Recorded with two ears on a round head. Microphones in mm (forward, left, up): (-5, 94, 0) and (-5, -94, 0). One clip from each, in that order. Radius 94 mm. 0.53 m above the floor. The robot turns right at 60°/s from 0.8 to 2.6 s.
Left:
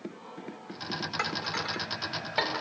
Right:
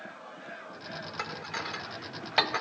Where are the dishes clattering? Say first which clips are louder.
Left 3 dB; 10° left (ahead or behind), 0.9 m; by 2.6 s 55° right (ahead or behind), 0.9 m.